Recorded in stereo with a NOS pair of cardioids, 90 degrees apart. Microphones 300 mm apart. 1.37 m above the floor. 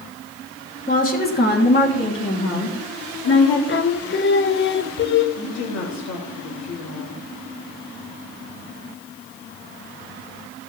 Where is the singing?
40° left, 1.0 m.